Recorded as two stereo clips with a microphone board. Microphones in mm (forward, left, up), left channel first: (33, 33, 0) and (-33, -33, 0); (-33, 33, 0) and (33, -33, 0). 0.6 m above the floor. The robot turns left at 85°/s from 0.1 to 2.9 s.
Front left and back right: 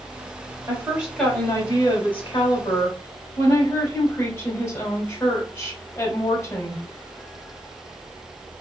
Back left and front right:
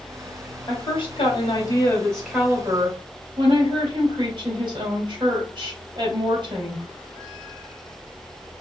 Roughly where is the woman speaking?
Behind.